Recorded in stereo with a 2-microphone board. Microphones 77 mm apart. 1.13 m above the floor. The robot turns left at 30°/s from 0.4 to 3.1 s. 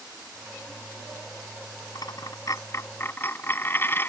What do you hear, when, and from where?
1.9 s a dropped coin: 65° left; by 4.1 s 30° left